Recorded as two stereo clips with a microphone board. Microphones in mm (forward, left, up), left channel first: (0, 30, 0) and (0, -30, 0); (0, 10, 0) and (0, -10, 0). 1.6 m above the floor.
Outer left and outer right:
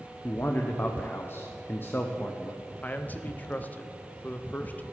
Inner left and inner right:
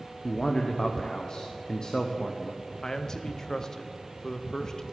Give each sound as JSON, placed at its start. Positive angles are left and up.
{"t": 0.2, "sound": "a man speaking", "side_deg": 40, "distance_m": 0.8}
{"t": 2.8, "sound": "a man speaking", "side_deg": 30, "distance_m": 0.8}